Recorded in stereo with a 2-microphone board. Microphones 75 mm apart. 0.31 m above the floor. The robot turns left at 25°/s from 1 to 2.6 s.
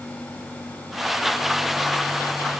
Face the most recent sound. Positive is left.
No sound to turn to.